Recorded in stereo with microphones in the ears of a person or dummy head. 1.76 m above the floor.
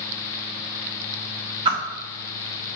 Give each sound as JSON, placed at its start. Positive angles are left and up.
{"t": 1.6, "sound": "a whoosh", "side_deg": -35, "distance_m": 0.6}